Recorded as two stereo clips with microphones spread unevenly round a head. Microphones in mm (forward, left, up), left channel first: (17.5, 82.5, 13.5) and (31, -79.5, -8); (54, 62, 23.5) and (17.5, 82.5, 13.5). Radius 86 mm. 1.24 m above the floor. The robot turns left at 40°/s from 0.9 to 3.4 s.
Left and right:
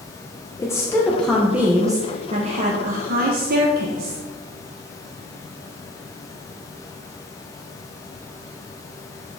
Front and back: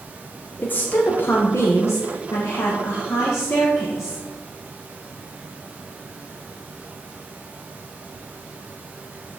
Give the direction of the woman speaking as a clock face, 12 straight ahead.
11 o'clock.